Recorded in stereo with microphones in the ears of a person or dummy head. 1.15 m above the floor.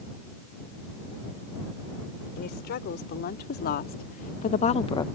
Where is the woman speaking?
55° left (ahead or behind); by 5.1 s 15° left (ahead or behind).